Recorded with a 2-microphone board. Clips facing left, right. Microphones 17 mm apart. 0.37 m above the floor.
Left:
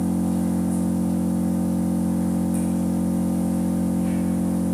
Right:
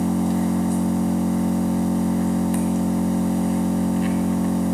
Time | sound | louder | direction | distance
0.0 | an engine running | right 2 dB | 70° right (ahead or behind) | 1.4 m